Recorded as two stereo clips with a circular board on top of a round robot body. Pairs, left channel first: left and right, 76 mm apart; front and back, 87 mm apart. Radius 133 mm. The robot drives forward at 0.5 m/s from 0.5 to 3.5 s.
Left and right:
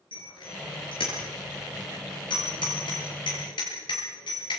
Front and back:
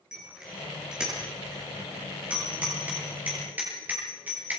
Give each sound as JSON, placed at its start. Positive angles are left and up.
{"t": 0.1, "sound": "a bicycle bell", "azimuth_deg": 100, "distance_m": 7.5}